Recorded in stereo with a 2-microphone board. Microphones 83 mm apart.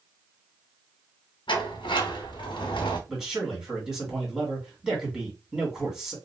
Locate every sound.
1.5 s a sliding door: 85° left, 0.8 m
3.1 s a man speaking: 5° right (ahead or behind), 1.6 m